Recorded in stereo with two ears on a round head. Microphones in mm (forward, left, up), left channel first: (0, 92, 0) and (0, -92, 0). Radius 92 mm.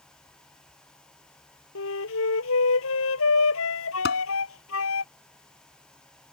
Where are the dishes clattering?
55° left (ahead or behind).